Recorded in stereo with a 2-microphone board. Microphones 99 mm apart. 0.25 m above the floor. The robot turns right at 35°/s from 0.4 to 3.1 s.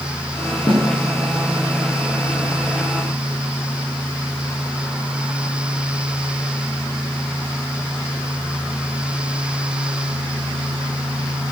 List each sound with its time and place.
0.7 s a snare drum: 60° left (ahead or behind), 3.5 m